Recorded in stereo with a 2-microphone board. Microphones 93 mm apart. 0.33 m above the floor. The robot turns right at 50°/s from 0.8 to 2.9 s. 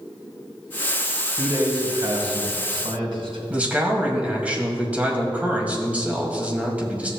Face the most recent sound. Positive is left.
turn(degrees=-15)  # may be behind; listen again after turning